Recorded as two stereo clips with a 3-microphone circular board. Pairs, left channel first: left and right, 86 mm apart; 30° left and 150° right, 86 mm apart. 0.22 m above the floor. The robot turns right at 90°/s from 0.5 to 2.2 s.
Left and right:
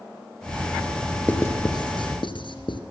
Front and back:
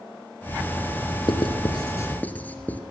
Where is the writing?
20° left, 2.5 m; by 2.8 s 100° left, 2.5 m.